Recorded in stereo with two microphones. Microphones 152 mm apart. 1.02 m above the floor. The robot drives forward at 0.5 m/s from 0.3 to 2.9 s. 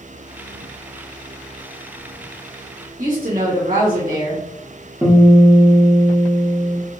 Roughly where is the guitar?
Centre.